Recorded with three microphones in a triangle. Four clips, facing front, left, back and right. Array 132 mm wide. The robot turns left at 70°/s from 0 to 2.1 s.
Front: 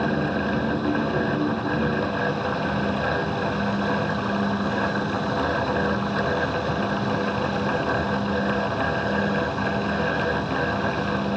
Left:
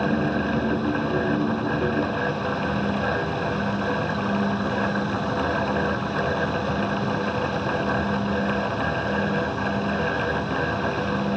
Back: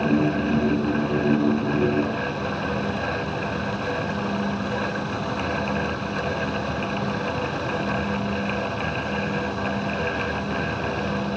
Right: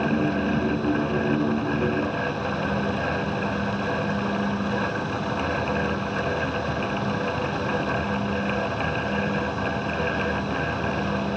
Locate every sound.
Only background noise.